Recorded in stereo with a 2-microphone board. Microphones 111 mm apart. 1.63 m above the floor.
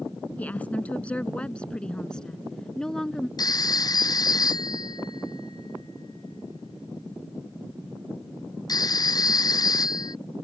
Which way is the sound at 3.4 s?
35° left (ahead or behind).